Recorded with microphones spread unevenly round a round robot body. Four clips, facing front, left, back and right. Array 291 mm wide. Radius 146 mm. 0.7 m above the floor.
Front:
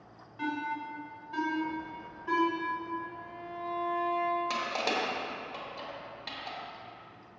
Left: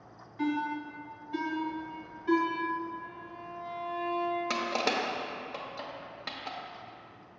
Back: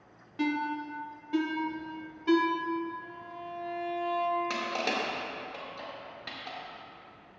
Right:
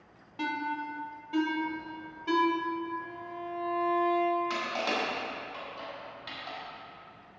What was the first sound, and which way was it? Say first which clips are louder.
A ringtone: left 2 dB, back 3 dB; 160° right.